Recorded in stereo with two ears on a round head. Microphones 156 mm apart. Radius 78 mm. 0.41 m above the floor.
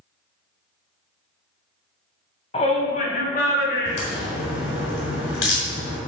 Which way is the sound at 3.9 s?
80° left.